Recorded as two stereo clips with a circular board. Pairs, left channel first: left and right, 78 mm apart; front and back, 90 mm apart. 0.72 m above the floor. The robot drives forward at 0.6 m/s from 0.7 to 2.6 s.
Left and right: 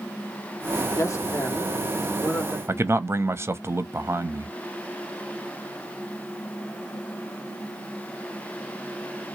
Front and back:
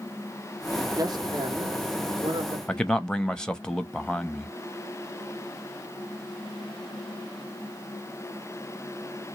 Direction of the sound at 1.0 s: 140° left.